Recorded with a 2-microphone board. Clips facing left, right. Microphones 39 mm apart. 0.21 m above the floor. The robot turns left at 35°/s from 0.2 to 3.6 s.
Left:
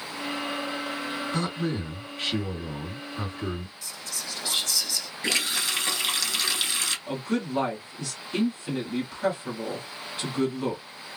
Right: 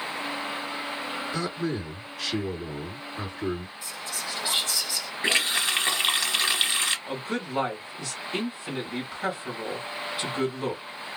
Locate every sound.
1.3 s a man speaking: 75° left, 2 m; by 3.7 s 5° right, 2 m
3.8 s whispering: 25° right (ahead or behind), 1.0 m
5.2 s a running tap: 30° right (ahead or behind), 0.8 m
7.1 s a man speaking: 10° right (ahead or behind), 1.2 m